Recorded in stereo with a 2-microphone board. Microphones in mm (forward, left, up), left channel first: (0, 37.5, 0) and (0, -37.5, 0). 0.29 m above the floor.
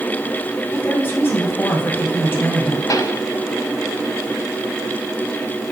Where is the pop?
50° left (ahead or behind), 1.3 m.